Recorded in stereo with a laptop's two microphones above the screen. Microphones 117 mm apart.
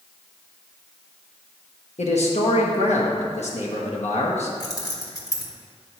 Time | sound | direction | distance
2.0 | a man speaking | 70° left (ahead or behind) | 1.0 m
4.6 | keys jangling | 30° left (ahead or behind) | 1.0 m